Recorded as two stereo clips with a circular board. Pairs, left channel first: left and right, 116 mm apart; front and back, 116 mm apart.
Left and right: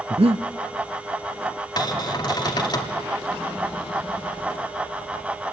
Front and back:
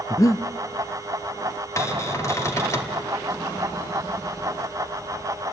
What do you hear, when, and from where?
0.1 s breathing: 60° right, 0.8 m
1.8 s a cupboard door: 55° left, 2 m